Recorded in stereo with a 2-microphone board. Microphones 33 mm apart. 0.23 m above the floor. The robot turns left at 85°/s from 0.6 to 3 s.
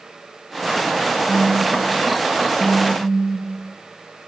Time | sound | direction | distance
1.3 | a phone buzzing | 45° right | 3 m